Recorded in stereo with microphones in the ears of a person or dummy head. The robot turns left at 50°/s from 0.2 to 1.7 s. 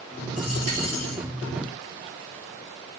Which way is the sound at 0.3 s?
95° left.